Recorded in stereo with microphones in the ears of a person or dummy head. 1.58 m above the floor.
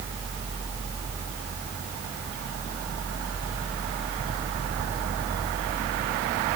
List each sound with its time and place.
Only background noise.